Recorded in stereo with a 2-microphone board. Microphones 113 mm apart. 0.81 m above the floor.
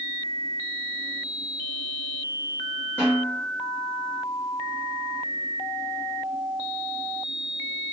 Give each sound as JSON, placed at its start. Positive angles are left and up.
{"t": 3.0, "sound": "a snare drum", "side_deg": 10, "distance_m": 2.0}